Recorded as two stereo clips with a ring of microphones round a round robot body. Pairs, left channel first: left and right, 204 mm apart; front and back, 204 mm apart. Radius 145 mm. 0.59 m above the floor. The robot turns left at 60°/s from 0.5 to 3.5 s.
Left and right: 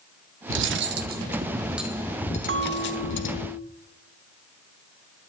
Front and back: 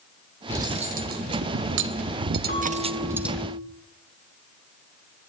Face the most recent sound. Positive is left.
turn(degrees=-120)